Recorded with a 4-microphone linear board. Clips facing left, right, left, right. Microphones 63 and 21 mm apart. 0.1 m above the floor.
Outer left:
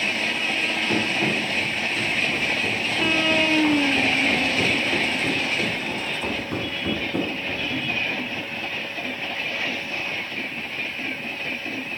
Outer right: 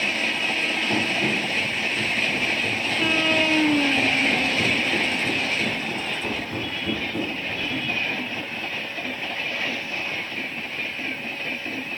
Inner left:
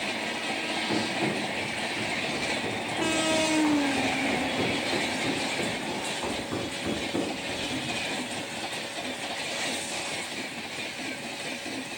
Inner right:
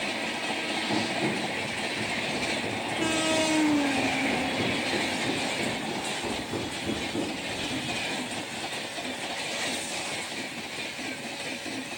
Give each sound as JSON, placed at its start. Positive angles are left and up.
{"t": 0.9, "sound": "running footsteps", "side_deg": 30, "distance_m": 5.5}